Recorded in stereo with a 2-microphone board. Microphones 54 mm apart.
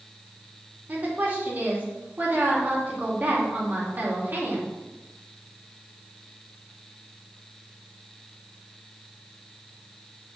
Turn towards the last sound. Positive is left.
turn(degrees=-35)  # may be behind; listen again after turning